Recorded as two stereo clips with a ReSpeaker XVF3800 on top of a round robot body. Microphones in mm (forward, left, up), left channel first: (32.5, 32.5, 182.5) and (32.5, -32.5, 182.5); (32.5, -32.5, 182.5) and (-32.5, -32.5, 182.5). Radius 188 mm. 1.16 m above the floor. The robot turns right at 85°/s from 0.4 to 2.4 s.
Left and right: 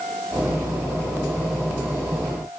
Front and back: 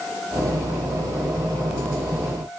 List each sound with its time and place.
Only background noise.